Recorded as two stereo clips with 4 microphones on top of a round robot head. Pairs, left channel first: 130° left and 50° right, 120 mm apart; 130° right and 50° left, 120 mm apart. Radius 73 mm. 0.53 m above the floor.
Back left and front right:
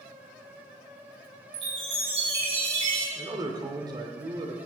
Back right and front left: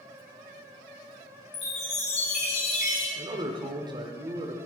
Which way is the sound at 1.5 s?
95° right.